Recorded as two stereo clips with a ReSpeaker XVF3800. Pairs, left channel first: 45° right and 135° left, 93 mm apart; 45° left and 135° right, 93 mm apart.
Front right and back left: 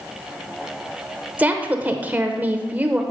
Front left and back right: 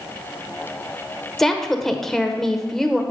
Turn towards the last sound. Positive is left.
turn(degrees=120)